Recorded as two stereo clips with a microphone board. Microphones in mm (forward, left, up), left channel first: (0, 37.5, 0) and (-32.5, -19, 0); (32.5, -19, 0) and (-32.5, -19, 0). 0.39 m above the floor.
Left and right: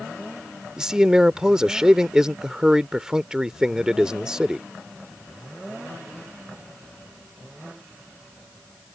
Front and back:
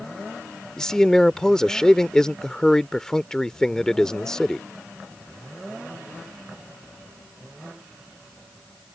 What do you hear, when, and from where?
0.8 s a man speaking: 60° right